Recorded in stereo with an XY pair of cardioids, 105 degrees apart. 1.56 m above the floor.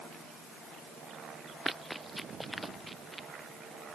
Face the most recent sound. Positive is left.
turn(degrees=-10)